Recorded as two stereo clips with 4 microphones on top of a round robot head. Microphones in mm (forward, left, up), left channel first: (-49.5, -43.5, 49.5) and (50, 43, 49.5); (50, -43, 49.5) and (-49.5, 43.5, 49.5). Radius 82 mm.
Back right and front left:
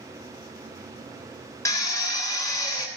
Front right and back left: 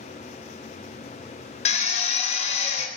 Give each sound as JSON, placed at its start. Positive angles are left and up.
{"t": 1.6, "sound": "a drill", "azimuth_deg": -70, "distance_m": 3.0}